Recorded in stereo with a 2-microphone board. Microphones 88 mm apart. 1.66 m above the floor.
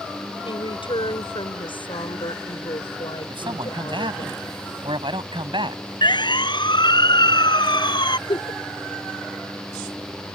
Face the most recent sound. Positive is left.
turn(degrees=70)  # may be behind; listen again after turning